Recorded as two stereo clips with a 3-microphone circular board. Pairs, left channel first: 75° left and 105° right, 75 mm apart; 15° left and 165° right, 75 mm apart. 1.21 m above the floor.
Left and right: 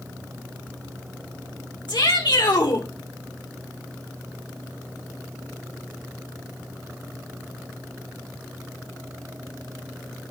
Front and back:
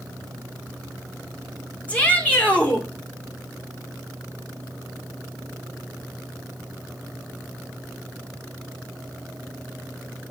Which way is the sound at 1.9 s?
85° left.